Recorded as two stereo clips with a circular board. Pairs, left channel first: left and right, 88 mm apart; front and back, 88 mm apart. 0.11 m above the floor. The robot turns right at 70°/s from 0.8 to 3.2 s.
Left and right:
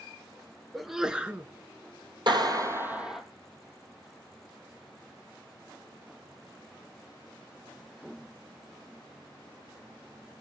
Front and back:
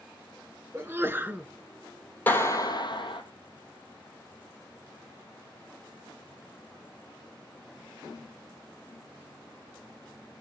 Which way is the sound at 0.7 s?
Straight behind.